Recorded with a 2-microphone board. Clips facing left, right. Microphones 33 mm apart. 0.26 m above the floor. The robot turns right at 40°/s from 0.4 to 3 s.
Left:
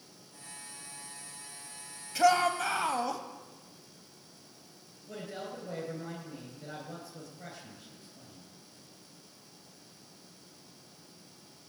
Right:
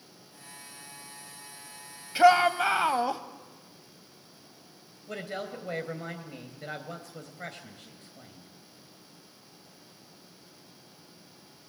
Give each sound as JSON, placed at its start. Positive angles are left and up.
{"t": 2.1, "sound": "a shout", "azimuth_deg": -95, "distance_m": 1.1}
{"t": 5.1, "sound": "a woman speaking", "side_deg": -75, "distance_m": 3.5}